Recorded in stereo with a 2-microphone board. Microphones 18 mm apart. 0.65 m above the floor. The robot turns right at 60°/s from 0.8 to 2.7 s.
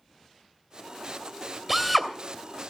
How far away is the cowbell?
No cowbell in this recording.